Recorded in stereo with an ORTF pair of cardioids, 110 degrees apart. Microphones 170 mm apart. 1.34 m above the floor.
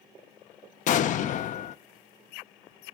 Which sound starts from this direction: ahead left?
An explosion, at 0.9 s.